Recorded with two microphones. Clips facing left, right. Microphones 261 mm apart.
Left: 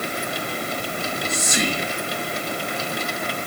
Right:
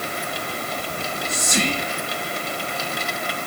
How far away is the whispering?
About 5.5 m.